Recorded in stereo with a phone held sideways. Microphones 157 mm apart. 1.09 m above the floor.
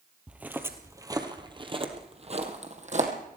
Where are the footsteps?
5° right (ahead or behind), 1.7 m; by 3.1 s 50° right (ahead or behind), 2.5 m.